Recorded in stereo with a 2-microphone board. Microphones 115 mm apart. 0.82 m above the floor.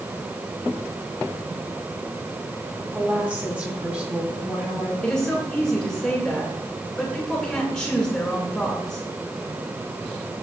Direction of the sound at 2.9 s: 10° right (ahead or behind).